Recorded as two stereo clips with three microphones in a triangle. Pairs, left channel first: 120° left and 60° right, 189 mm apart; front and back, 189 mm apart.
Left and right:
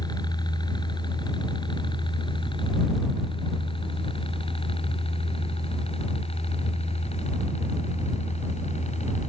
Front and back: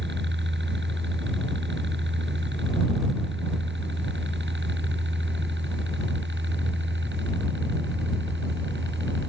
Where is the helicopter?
175° right; by 9.3 s 175° left.